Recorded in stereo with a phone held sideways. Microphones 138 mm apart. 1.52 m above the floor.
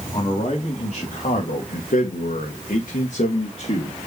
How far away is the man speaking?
About 2.5 m.